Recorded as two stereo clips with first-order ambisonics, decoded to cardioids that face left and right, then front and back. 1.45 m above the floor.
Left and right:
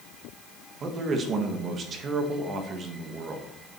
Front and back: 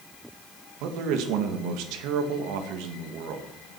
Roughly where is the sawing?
I don't hear sawing.